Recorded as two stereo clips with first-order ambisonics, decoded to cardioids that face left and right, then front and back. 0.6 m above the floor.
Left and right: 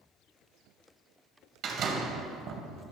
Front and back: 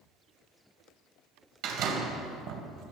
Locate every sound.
1.6 s a door slam: 145° right, 2 m